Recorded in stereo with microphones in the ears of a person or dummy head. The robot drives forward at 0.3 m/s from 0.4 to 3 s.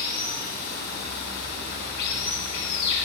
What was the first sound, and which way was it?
Running water, 50° left (ahead or behind).